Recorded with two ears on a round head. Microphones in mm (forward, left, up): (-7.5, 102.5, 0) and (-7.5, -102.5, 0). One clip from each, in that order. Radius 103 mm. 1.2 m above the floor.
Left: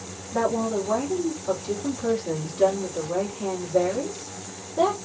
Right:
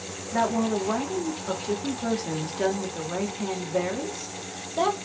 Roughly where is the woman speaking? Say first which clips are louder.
Left 1 dB; right.